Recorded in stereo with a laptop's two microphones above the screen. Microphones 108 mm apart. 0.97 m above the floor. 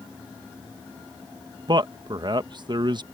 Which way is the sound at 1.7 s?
45° right (ahead or behind).